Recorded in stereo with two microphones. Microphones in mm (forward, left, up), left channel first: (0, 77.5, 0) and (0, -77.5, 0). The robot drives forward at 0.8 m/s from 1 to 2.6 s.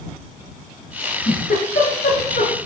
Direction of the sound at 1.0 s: 70° left (ahead or behind).